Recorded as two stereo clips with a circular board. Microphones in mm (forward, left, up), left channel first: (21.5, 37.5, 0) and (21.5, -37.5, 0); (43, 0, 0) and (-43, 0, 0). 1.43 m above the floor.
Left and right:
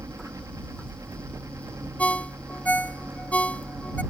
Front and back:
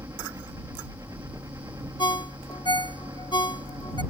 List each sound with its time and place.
0.0 s a helicopter: 130° right; by 4.1 s 140° right
2.0 s a ringtone: 20° left